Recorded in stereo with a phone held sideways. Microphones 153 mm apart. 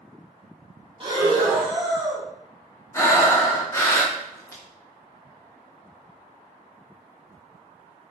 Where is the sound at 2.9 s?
20° left (ahead or behind), 0.6 m.